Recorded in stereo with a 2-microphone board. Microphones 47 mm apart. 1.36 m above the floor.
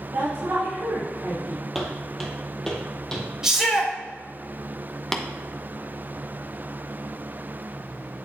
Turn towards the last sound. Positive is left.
turn(degrees=5)  # may be behind; listen again after turning